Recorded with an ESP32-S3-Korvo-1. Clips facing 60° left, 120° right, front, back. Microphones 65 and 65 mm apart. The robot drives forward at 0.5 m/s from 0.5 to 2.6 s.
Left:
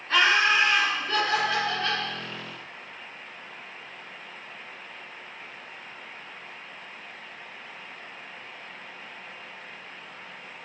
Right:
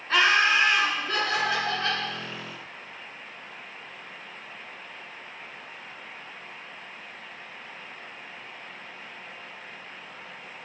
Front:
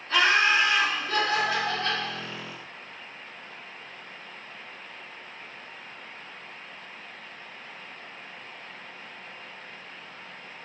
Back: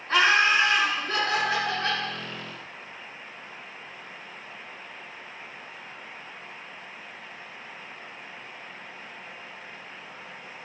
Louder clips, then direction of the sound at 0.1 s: Even, back 1 dB; 160° left.